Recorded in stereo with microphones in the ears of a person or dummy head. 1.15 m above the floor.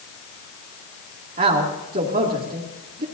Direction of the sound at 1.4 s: 40° right (ahead or behind).